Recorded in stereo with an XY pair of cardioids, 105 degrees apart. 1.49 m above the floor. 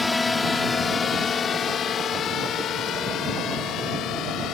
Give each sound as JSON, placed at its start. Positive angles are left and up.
{"t": 0.0, "sound": "a drone", "azimuth_deg": 20}